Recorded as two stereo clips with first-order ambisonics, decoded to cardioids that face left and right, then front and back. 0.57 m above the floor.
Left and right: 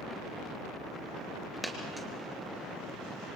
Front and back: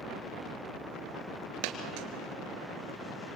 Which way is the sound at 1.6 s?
175° right.